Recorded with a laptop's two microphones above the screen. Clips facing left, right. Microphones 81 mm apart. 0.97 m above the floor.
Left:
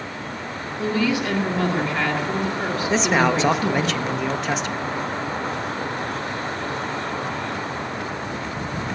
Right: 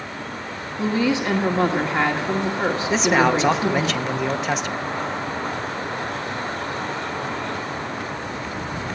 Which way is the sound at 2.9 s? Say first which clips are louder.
Right 1 dB; centre (ahead or behind).